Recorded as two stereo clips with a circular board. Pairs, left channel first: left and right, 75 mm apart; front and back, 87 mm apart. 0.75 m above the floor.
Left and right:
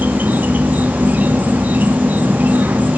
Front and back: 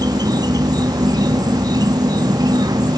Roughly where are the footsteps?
No footsteps in this recording.